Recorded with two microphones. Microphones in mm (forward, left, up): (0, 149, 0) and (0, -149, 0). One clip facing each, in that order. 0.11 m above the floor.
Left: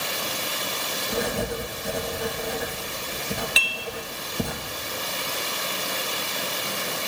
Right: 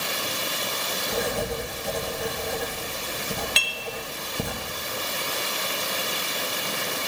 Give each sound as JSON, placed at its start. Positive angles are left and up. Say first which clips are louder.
{"t": 1.1, "sound": "writing", "louder": "left 1 dB", "side_deg": 0, "distance_m": 2.5}
{"t": 3.6, "sound": "dishes clattering", "louder": "left 1 dB", "side_deg": 5, "distance_m": 1.0}